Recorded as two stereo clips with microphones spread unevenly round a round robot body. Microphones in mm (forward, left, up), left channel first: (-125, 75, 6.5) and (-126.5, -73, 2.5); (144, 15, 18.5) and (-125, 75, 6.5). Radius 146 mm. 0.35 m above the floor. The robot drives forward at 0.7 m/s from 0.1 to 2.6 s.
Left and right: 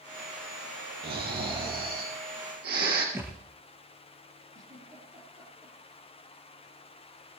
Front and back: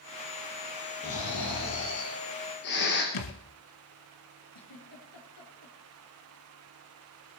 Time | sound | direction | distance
1.0 | snoring | 60° right | 5.5 m
3.1 | a thud | 10° right | 2 m
4.5 | a giggle | 30° right | 6 m